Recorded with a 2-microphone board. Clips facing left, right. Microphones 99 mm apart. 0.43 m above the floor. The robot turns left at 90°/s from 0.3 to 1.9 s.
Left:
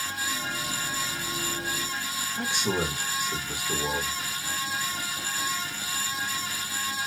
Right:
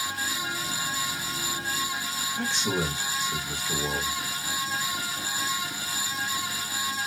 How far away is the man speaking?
About 1.1 m.